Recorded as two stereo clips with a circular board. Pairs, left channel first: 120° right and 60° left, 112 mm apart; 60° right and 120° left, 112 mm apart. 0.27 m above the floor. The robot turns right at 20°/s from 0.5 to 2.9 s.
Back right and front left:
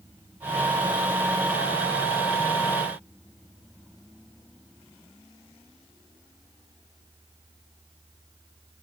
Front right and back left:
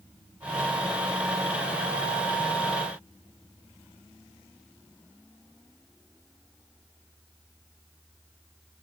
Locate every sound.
Only background noise.